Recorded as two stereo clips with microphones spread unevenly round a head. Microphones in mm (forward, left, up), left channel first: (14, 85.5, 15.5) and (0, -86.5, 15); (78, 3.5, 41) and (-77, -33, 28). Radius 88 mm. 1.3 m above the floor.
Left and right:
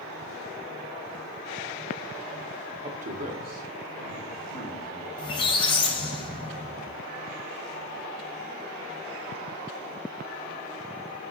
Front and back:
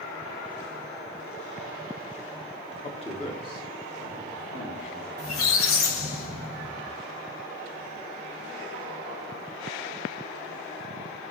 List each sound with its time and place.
2.8 s a man speaking: 40° right, 0.5 m; by 5.1 s 55° right, 4 m
5.2 s a squeak: 20° left, 0.6 m